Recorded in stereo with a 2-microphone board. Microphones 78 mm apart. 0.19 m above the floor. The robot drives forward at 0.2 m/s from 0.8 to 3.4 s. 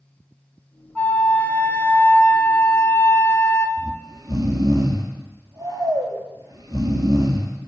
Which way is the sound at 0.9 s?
20° left (ahead or behind).